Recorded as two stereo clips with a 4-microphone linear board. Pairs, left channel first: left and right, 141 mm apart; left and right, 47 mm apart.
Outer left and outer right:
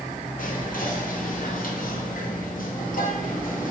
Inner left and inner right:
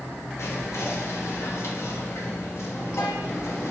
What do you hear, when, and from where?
0.4 s whispering: 75° left (ahead or behind), 1.0 m